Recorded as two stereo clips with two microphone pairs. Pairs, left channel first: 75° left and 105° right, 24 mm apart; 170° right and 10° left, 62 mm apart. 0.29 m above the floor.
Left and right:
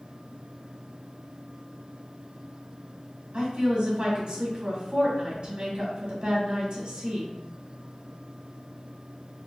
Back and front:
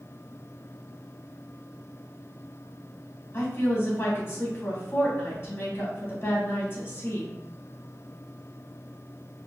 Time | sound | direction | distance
3.3 | a woman speaking | 125° right | 1.6 m